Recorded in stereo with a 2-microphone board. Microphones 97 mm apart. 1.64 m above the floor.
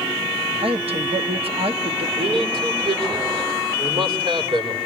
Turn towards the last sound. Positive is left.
turn(degrees=-75)  # may be behind; listen again after turning